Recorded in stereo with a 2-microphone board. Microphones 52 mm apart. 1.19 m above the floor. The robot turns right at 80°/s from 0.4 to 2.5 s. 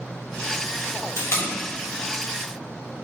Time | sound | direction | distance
1.2 | tape being pulled | 70° left (ahead or behind) | 3 m